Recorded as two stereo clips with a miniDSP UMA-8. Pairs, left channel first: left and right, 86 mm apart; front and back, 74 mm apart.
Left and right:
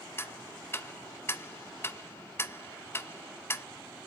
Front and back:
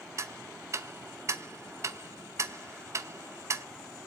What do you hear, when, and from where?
0.2 s ticking: 145° left, 0.5 m